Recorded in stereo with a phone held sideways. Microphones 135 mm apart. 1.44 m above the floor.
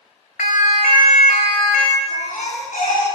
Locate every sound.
0.4 s a siren: 70° left (ahead or behind), 3 m; by 2.0 s 80° left, 3.5 m
2.1 s a baby crying: 80° left, 9.5 m